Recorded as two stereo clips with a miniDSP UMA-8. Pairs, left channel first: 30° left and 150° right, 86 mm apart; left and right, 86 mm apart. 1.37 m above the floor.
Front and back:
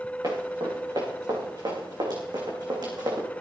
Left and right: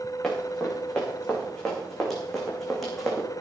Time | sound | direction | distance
0.2 | running footsteps | 175° left | 8 m